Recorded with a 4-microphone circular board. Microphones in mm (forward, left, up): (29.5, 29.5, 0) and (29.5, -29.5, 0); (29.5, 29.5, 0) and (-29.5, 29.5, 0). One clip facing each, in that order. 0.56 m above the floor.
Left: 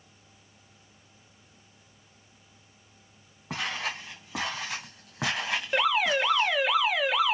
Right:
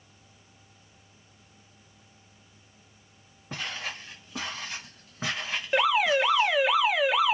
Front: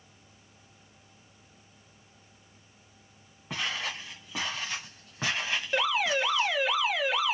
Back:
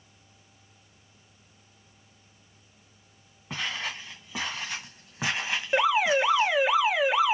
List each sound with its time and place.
3.5 s footsteps: 90° left, 3 m; by 6.6 s 115° left, 1.5 m
5.7 s an alarm: 170° right, 0.8 m